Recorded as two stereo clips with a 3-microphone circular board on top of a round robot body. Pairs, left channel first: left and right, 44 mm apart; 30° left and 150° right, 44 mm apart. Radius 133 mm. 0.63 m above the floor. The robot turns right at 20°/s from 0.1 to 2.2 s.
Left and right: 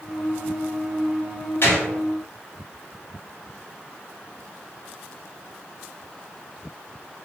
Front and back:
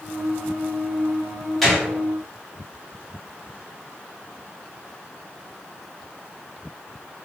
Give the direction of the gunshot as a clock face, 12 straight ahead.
8 o'clock.